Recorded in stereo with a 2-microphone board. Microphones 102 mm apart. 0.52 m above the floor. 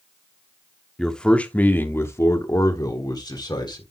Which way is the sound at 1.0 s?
5° left (ahead or behind).